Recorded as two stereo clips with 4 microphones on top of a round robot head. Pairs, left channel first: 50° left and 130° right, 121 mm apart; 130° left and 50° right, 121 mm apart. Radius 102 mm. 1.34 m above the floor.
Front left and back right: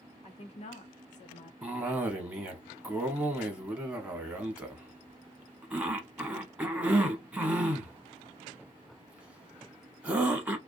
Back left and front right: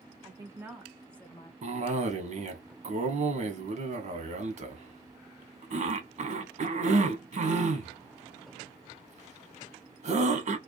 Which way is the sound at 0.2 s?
10° left.